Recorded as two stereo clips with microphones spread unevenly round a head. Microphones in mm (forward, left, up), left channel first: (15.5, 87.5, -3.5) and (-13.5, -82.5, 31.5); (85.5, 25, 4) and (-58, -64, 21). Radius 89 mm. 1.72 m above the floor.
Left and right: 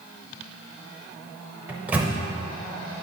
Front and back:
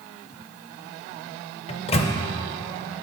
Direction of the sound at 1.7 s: 25° right.